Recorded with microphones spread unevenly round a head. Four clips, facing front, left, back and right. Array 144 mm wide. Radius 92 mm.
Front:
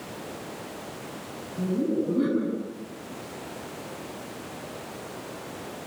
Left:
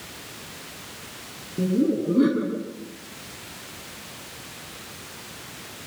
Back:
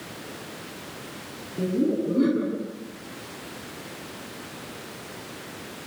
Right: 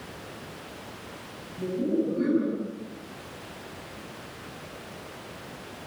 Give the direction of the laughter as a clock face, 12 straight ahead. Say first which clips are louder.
Left 4 dB, back 2 dB; 8 o'clock.